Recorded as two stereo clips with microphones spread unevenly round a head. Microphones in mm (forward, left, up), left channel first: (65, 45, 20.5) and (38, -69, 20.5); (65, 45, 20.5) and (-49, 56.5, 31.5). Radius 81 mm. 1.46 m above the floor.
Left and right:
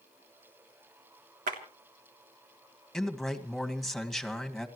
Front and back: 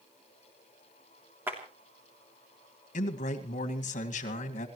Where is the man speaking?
10° right, 2 m.